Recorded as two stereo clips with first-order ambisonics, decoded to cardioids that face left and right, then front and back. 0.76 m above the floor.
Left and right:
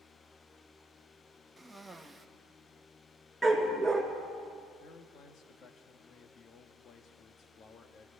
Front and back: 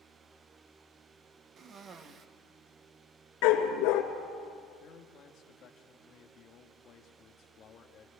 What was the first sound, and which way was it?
A cough, 165° right.